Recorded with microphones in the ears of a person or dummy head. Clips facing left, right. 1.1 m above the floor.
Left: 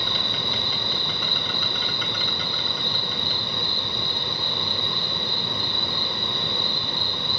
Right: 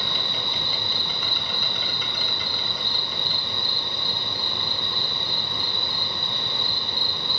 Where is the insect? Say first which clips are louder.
Left 2 dB; 60° left (ahead or behind), 3.5 m.